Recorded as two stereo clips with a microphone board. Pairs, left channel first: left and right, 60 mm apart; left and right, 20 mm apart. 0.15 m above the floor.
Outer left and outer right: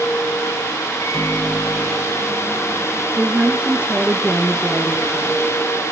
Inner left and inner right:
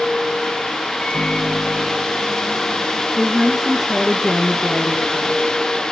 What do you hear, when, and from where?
1.0 s a microwave: 55° left (ahead or behind), 1.8 m
3.2 s a woman speaking: 20° right (ahead or behind), 2 m